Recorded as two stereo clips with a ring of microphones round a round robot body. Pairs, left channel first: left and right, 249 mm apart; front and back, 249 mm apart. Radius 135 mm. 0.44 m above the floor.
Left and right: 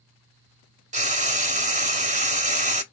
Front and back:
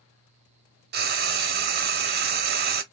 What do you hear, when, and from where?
0.9 s frying: 145° right, 0.8 m